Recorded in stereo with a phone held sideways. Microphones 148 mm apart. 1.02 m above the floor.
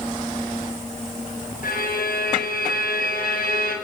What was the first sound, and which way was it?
A violin, 85° left.